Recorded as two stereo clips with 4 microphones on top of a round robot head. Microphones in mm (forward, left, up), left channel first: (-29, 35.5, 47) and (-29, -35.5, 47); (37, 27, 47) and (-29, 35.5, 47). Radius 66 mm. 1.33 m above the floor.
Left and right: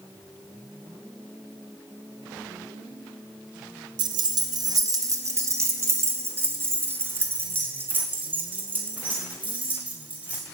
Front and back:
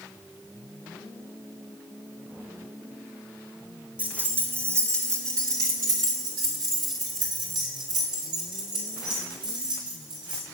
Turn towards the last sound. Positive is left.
turn(degrees=-165)